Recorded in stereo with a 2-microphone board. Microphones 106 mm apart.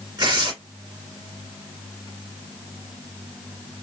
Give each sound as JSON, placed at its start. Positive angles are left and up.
{"t": 0.2, "sound": "tearing paper", "side_deg": -45, "distance_m": 2.0}